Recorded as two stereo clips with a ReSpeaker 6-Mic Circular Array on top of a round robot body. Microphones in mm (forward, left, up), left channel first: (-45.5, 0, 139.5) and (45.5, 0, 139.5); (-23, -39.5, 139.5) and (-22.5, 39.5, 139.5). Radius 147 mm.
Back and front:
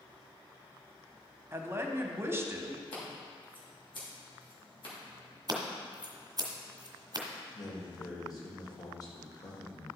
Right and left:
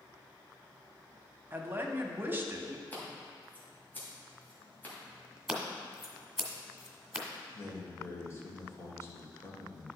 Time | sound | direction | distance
1.5 | a woman speaking | 45° left | 1.2 m
2.9 | scissors | 155° right | 3 m
5.5 | scissors | 10° left | 1.8 m
7.5 | a man speaking | 140° right | 2.5 m